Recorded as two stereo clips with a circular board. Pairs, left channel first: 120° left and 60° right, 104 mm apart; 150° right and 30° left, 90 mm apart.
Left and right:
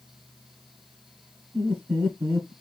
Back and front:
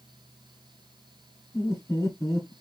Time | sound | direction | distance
1.5 | laughter | 110° right | 1.6 m